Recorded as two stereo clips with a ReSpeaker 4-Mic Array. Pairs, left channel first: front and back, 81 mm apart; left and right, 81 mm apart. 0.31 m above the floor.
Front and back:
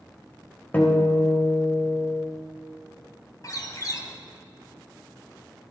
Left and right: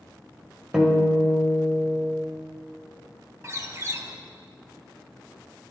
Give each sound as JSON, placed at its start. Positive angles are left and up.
{"t": 0.7, "sound": "a guitar", "azimuth_deg": -15, "distance_m": 1.2}
{"t": 3.4, "sound": "a bird", "azimuth_deg": -40, "distance_m": 0.7}